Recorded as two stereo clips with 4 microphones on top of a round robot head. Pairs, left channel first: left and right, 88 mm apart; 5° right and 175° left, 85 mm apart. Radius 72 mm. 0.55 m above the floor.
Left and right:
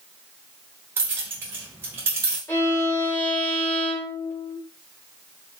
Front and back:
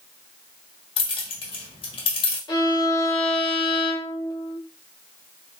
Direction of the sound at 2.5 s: 30° left.